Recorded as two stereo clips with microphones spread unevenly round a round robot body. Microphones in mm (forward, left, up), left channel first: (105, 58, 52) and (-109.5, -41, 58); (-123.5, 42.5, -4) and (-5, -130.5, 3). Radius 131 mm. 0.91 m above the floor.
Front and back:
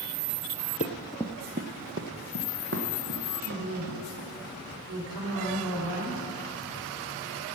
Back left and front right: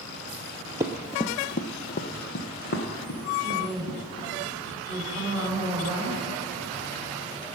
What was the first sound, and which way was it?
Running footsteps, straight ahead.